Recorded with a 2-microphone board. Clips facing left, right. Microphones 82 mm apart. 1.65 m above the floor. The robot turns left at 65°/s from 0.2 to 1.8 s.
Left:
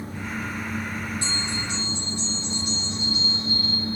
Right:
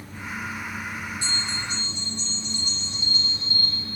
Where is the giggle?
I don't hear a giggle.